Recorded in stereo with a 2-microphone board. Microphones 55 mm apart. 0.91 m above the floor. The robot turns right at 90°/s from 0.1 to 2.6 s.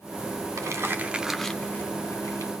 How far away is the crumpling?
About 1.1 m.